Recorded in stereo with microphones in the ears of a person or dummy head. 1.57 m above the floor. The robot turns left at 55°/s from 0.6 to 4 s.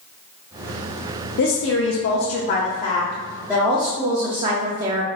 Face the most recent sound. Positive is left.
turn(degrees=-25)